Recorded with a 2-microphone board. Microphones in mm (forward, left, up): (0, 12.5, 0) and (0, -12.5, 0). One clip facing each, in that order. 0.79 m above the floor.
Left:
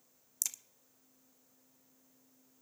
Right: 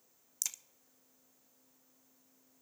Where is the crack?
5° right (ahead or behind), 0.5 m.